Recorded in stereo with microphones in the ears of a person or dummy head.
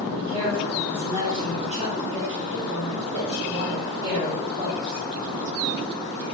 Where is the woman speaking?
25° right (ahead or behind), 2.5 m; by 5.0 s 45° right (ahead or behind), 5 m.